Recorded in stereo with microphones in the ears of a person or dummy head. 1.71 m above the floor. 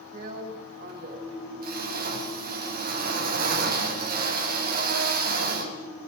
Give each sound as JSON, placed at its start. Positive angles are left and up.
{"t": 0.1, "sound": "a drill", "side_deg": -55, "distance_m": 5.0}